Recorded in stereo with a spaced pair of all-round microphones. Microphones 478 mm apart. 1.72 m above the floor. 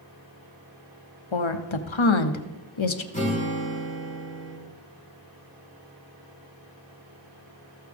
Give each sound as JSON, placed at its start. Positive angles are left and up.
{"t": 1.3, "sound": "a woman speaking", "side_deg": 75, "distance_m": 0.8}
{"t": 3.1, "sound": "a guitar", "side_deg": 15, "distance_m": 2.5}